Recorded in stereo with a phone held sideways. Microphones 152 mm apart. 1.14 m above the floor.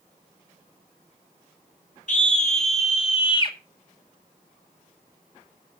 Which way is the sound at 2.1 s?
55° left (ahead or behind).